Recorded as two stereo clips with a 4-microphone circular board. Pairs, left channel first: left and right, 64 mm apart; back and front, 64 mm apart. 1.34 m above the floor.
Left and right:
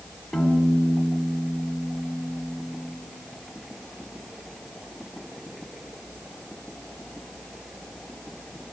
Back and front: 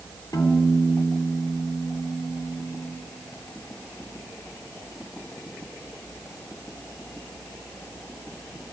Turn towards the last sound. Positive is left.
turn(degrees=180)